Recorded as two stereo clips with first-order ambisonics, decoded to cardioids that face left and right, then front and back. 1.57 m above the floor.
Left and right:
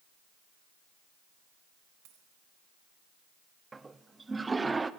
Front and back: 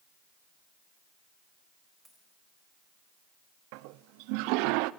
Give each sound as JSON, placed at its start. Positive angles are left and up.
{"t": 2.0, "sound": "a dropped coin", "azimuth_deg": -95, "distance_m": 4.0}
{"t": 3.7, "sound": "a toilet flushing", "azimuth_deg": -170, "distance_m": 0.6}